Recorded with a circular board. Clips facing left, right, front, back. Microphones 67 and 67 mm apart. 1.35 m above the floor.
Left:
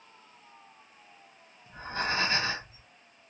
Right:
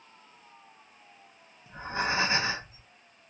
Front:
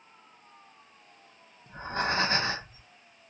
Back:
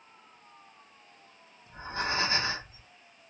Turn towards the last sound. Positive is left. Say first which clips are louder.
# right 2 dB, front 3 dB
turn(degrees=-20)